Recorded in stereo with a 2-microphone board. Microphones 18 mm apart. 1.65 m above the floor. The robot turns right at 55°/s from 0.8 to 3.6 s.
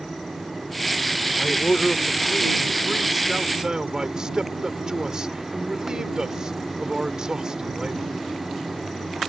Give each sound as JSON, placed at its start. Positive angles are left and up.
{"t": 1.4, "sound": "a man speaking", "azimuth_deg": 100}